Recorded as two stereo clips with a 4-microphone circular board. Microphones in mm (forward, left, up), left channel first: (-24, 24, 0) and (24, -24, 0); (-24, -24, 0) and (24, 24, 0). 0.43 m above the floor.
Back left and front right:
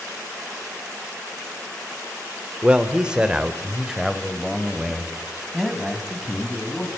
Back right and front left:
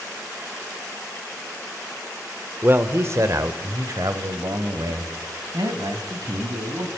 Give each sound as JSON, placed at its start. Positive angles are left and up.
{"t": 2.6, "sound": "a man speaking", "azimuth_deg": 15, "distance_m": 1.2}